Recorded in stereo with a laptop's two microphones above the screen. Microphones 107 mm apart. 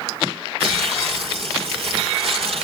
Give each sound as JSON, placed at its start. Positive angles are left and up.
{"t": 0.6, "sound": "tearing paper", "side_deg": -65, "distance_m": 2.0}